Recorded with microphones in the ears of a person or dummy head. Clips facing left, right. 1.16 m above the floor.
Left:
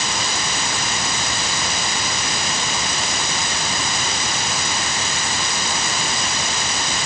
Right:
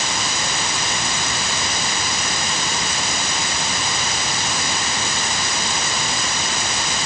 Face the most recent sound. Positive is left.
No sound to turn to.